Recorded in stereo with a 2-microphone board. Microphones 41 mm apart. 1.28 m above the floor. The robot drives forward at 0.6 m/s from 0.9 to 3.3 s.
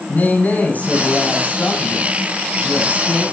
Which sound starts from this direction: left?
A man speaking, at 0.1 s.